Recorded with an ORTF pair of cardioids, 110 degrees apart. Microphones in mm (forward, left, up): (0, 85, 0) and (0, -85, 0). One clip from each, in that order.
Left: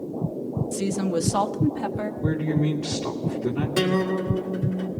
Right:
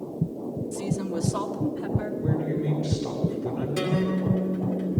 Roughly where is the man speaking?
Ahead left.